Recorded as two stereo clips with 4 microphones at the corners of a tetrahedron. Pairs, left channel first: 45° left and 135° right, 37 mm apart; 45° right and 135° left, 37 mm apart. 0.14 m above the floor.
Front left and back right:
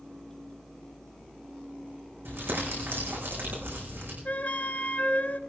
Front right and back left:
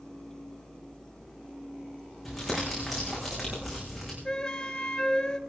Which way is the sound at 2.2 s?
130° right.